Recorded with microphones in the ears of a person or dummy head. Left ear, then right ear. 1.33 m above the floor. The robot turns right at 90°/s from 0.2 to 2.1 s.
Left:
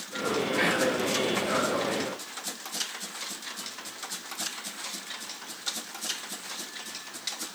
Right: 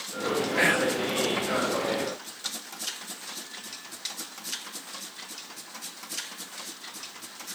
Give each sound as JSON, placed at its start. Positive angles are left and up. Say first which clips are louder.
{"t": 0.6, "sound": "whispering", "louder": "right 3 dB", "azimuth_deg": -140, "distance_m": 0.8}